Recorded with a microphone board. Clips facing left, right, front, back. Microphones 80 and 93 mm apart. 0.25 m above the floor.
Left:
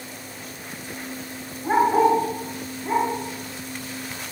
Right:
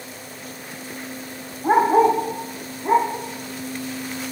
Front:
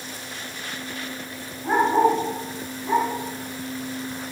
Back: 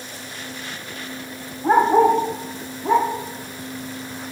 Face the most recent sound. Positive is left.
turn(degrees=-140)